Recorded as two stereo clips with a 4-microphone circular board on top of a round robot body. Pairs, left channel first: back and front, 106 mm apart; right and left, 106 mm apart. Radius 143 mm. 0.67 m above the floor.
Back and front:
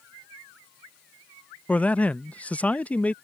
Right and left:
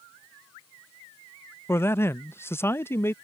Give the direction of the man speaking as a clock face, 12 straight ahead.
4 o'clock.